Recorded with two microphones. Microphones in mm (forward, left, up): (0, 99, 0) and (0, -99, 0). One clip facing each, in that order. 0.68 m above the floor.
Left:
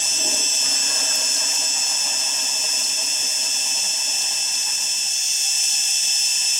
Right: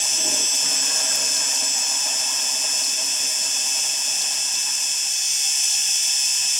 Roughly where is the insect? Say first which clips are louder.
Even; centre.